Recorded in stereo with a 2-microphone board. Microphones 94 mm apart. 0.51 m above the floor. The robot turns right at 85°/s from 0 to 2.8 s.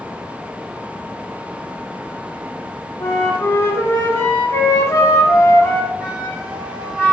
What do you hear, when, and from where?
3.0 s a flute: 30° left (ahead or behind), 0.6 m
6.0 s a flute: 10° right (ahead or behind), 1.3 m